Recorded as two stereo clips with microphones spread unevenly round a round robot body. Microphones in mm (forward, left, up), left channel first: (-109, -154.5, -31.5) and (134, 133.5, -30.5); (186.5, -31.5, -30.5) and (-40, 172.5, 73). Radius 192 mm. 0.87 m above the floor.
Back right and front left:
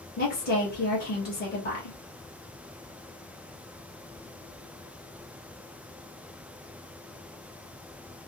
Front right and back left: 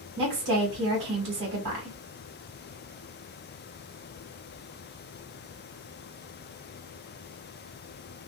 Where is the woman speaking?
170° left, 1.3 m.